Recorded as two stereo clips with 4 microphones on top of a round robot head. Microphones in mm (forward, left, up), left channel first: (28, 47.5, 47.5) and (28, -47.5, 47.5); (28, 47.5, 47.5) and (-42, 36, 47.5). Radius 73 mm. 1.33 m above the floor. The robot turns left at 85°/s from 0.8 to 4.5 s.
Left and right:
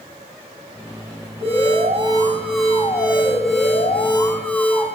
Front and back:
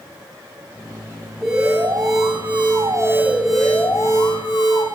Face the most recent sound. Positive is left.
turn(degrees=15)